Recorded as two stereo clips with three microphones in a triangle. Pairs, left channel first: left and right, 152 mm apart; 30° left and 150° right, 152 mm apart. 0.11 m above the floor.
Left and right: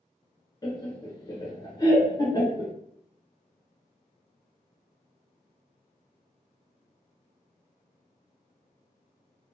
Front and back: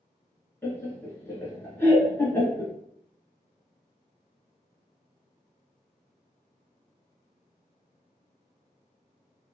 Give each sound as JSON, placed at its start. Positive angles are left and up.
{"t": 0.6, "sound": "laughter", "azimuth_deg": 80, "distance_m": 1.3}